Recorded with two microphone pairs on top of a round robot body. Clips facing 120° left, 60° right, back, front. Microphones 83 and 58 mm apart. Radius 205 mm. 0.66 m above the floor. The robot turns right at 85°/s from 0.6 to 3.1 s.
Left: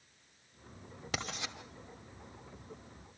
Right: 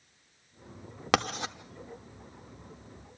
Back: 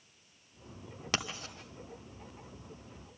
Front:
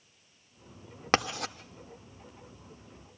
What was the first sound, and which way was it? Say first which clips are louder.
Writing: right 13 dB, front 9 dB; 45° right.